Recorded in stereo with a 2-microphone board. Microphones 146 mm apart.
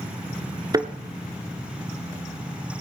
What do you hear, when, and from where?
0.7 s a thud: 25° right (ahead or behind), 0.8 m